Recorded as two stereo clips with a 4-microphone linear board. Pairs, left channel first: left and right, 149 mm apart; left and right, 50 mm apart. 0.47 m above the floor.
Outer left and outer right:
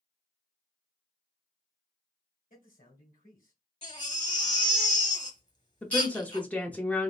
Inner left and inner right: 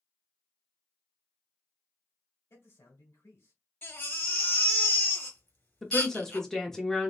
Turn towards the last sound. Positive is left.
turn(degrees=10)  # may be behind; listen again after turning